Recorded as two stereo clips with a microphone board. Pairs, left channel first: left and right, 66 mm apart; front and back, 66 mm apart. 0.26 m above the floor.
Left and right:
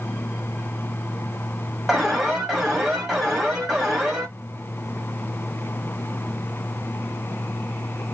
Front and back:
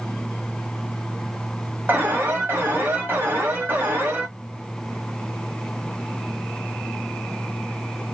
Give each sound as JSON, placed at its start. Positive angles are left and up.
{"t": 1.9, "sound": "an alarm", "azimuth_deg": -170, "distance_m": 1.5}